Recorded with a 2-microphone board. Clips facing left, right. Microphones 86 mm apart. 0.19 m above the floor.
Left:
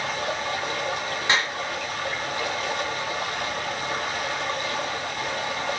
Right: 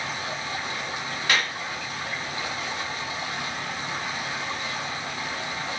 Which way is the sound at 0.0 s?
60° left (ahead or behind).